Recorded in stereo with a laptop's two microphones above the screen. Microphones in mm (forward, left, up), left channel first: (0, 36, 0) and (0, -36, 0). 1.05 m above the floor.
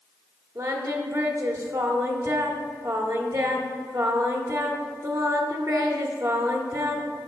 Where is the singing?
50° right (ahead or behind), 1.5 m.